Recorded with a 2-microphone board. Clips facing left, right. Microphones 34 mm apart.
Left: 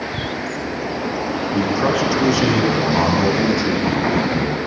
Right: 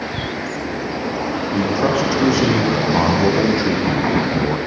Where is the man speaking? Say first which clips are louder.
Even; centre (ahead or behind), 7.5 m; by 4.6 s 35° right (ahead or behind), 5.5 m.